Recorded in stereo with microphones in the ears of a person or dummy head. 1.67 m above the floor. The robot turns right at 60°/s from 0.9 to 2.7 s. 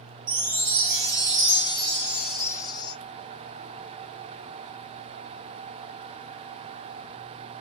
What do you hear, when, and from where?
0.3 s a chime: 80° right, 0.7 m; by 2.9 s 30° left, 0.7 m